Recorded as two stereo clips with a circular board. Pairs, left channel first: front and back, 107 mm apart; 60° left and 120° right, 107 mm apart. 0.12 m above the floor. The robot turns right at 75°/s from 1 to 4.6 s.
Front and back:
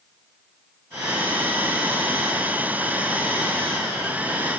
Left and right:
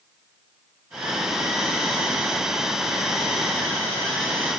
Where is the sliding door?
No sliding door in this recording.